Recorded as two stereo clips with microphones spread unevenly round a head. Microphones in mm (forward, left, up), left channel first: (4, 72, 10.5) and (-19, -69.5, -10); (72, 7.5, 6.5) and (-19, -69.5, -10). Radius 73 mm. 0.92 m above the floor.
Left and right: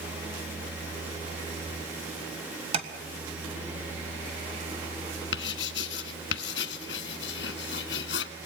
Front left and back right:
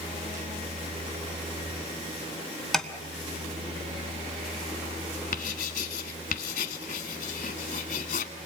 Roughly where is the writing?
Left.